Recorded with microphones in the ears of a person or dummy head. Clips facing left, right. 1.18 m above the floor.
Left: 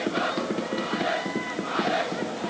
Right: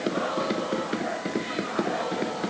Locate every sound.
Only background noise.